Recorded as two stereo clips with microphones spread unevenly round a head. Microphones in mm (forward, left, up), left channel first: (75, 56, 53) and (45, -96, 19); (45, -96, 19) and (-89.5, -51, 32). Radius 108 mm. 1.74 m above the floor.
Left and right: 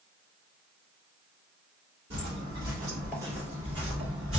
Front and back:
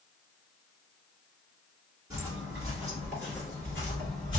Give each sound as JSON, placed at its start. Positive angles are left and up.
{"t": 2.1, "sound": "footsteps", "azimuth_deg": -160, "distance_m": 1.8}